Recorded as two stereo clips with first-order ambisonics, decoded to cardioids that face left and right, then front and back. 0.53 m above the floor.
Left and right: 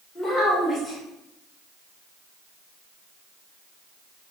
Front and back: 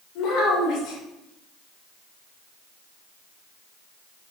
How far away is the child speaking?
About 1.5 m.